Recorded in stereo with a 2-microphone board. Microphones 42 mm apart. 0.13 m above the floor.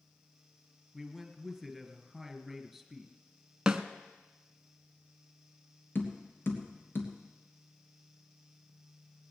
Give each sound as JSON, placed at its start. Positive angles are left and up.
{"t": 0.9, "sound": "a man speaking", "side_deg": 0, "distance_m": 2.0}
{"t": 3.7, "sound": "a snare drum", "side_deg": -20, "distance_m": 1.0}
{"t": 6.0, "sound": "tapping", "side_deg": 60, "distance_m": 2.5}